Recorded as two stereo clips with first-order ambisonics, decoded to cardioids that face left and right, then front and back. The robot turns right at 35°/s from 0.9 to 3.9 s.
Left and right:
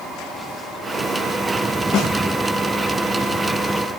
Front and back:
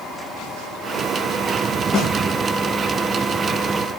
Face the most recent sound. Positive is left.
turn(degrees=125)